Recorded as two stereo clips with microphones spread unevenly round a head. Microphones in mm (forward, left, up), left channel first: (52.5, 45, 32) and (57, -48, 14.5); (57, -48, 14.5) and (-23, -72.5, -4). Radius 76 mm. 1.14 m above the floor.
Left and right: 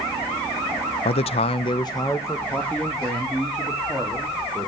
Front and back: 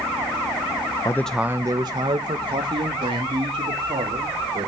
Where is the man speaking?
85° left, 0.6 m; by 4.7 s 175° right, 3 m.